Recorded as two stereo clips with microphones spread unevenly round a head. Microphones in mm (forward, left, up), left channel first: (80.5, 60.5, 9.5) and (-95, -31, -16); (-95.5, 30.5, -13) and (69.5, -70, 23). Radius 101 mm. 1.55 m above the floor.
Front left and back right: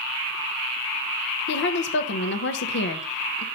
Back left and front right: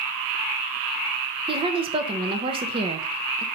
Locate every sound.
1.5 s a woman speaking: 25° left, 0.8 m